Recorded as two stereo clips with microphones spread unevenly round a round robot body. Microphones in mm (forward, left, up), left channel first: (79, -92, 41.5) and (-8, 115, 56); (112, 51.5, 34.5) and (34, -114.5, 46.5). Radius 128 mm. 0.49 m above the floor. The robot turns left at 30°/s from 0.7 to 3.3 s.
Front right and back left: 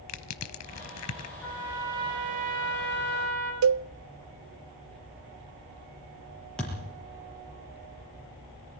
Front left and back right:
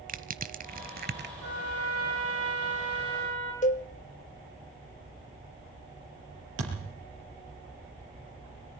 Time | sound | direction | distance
0.1 | crushing | 70° right | 1.2 m
1.4 | a trumpet | 155° right | 5.5 m
3.6 | a cowbell | 125° left | 0.5 m
6.6 | a thud | 155° right | 4.5 m